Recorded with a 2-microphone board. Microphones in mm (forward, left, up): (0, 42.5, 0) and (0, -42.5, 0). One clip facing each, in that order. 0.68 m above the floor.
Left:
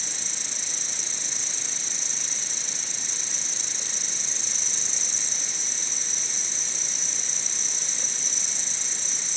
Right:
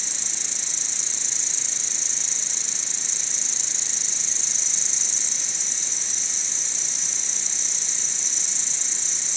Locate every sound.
0.0 s an insect: 55° left (ahead or behind)